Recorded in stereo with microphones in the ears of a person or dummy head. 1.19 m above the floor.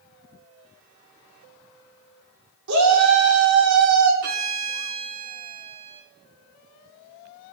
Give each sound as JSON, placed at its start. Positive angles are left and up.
{"t": 2.7, "sound": "a shout", "side_deg": -80, "distance_m": 4.0}
{"t": 4.2, "sound": "a violin", "side_deg": -50, "distance_m": 2.0}